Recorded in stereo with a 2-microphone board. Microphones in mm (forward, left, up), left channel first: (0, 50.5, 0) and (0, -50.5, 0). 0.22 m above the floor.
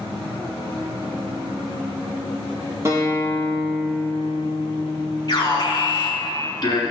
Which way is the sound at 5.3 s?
40° left (ahead or behind).